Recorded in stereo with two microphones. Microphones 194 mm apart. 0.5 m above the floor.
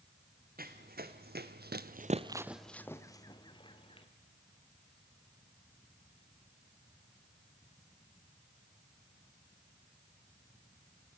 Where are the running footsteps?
50° right (ahead or behind), 1.9 m; by 4.1 s 25° left (ahead or behind), 2.5 m.